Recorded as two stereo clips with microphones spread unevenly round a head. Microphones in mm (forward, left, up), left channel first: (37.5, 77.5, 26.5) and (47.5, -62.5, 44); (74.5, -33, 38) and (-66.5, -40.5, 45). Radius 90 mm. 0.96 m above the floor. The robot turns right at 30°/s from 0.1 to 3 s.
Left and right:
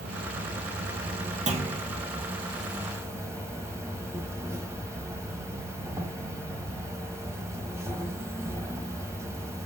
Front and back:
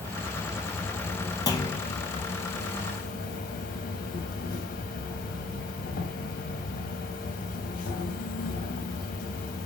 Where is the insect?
105° right, 1.7 m; by 9.7 s 20° right, 1.7 m.